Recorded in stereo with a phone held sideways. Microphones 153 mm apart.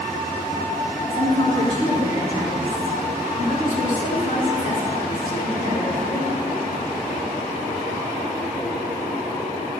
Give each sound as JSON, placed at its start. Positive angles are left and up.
{"t": 1.1, "sound": "a woman speaking", "side_deg": 55, "distance_m": 4.5}